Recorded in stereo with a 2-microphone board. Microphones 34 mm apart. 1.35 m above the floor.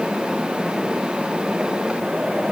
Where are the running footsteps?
No running footsteps in this recording.